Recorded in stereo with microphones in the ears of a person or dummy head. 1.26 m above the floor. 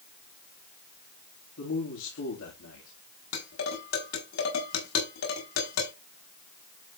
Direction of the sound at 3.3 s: 75° left (ahead or behind).